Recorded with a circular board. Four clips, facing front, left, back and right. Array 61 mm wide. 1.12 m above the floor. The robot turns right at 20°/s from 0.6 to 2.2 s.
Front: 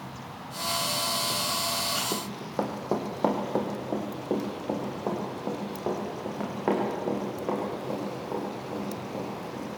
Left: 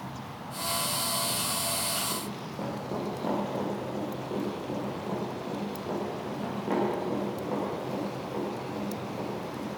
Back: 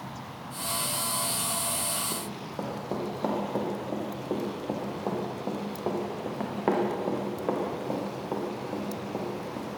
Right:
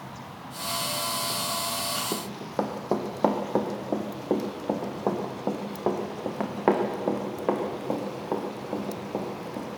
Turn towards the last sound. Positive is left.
turn(degrees=-105)